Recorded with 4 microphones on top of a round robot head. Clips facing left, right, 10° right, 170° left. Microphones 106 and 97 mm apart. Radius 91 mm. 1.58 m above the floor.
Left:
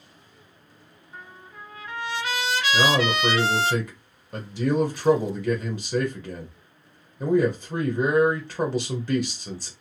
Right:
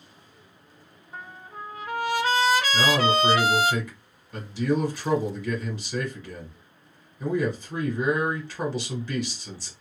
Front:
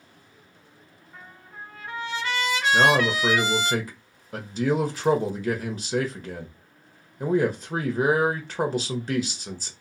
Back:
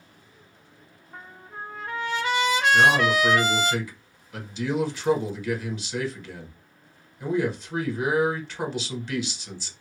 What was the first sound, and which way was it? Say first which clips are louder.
A trumpet: right 4 dB, back 4 dB; 140° right.